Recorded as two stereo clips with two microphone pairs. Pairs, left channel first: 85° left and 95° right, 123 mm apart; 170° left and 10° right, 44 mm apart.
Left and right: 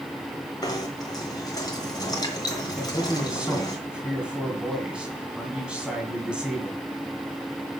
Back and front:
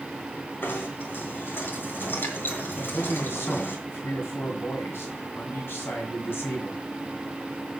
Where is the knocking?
140° left, 2.5 m.